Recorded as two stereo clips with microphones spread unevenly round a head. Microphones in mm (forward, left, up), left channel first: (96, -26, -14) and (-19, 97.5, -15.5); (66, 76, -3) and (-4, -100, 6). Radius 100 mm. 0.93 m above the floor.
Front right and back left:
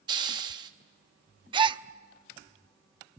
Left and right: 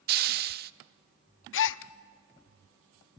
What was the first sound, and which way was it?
A hiss, 155° right.